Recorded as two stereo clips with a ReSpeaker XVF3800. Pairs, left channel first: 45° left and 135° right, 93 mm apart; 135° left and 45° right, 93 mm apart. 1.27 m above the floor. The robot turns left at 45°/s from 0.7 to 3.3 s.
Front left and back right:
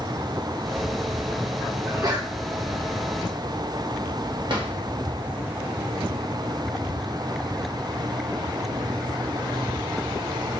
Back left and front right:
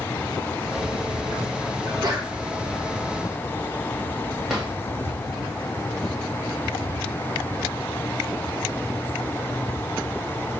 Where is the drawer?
130° right, 1.7 m.